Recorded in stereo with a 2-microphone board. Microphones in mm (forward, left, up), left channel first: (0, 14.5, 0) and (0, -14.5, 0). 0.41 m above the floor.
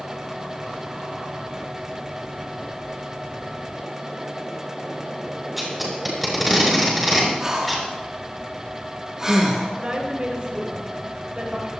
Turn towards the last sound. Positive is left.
turn(degrees=-35)  # may be behind; listen again after turning